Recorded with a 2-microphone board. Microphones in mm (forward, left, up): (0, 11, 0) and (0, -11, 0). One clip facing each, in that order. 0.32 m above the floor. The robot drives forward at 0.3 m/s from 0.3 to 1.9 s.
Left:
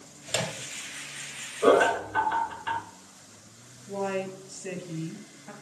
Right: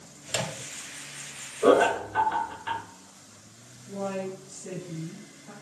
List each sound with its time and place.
0.3 s a microwave: 20° left (ahead or behind), 0.7 m
1.6 s laughter: 15° left (ahead or behind), 1.3 m
3.9 s a woman speaking: 60° left (ahead or behind), 3 m